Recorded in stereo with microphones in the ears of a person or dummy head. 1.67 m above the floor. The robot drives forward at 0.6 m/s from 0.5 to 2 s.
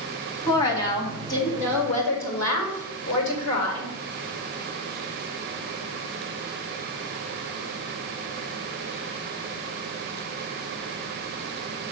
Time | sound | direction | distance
0.5 | a woman speaking | 20° left (ahead or behind) | 2.5 m